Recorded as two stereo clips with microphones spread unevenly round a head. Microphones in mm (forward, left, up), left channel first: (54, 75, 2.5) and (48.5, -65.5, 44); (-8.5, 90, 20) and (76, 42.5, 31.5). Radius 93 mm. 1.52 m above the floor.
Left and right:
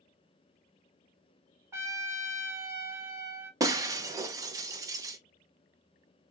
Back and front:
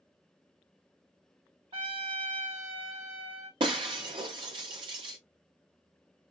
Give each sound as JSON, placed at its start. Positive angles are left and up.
{"t": 1.7, "sound": "a trumpet", "azimuth_deg": -40, "distance_m": 1.8}
{"t": 3.6, "sound": "breaking glass", "azimuth_deg": -50, "distance_m": 0.8}